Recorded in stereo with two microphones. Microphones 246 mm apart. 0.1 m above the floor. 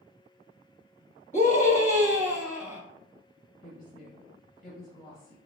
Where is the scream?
30° left (ahead or behind), 1.3 m.